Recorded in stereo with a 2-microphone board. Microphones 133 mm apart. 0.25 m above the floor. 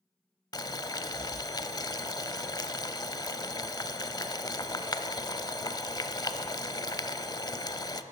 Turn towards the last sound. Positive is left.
turn(degrees=30)  # may be behind; listen again after turning